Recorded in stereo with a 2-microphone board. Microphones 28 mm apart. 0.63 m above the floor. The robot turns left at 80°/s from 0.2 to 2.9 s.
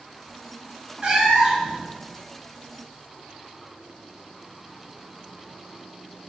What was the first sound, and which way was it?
A cat meowing, 100° right.